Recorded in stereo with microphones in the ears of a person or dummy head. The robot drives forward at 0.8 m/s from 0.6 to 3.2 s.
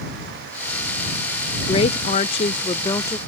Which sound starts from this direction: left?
A woman speaking, at 1.7 s.